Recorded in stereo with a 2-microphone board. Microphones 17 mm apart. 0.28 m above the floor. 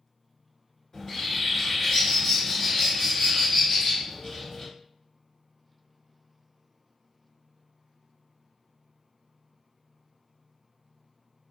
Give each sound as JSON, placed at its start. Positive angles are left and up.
{"t": 0.9, "sound": "a bird", "side_deg": 40, "distance_m": 1.7}